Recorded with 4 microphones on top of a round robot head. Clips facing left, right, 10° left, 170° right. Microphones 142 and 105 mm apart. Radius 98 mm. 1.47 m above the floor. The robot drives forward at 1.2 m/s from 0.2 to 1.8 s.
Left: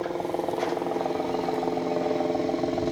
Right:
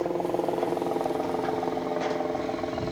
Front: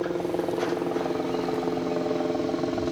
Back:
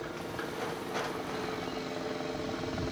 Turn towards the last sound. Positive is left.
turn(degrees=35)